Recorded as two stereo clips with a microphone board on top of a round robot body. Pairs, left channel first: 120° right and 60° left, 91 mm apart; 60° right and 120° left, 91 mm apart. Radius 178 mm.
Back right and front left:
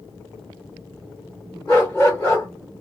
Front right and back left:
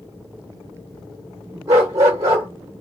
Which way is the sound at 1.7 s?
170° left.